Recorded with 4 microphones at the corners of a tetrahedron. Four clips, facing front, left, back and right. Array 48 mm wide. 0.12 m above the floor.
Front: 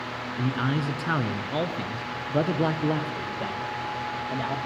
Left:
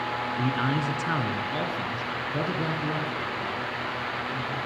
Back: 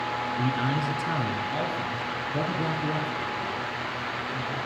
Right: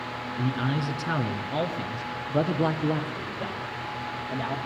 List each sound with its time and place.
0.4 s a man speaking: 75° left, 1.7 m; by 4.5 s 25° right, 6 m